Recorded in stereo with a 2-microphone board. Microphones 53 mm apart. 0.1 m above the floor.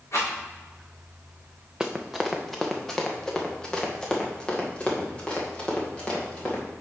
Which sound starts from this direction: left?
A rattle, at 0.1 s.